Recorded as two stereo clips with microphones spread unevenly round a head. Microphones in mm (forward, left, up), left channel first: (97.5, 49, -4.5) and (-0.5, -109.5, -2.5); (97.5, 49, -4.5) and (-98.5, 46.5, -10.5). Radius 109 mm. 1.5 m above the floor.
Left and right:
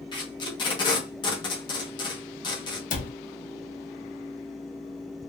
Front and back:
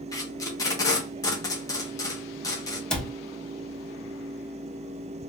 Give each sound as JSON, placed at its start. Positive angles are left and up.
{"t": 0.1, "sound": "tape being pulled", "azimuth_deg": 40, "distance_m": 0.9}
{"t": 2.9, "sound": "a cupboard door", "azimuth_deg": 85, "distance_m": 0.8}